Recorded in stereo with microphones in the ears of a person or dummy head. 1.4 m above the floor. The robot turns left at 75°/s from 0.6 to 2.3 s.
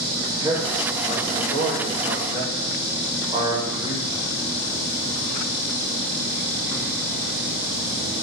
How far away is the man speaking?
About 0.8 m.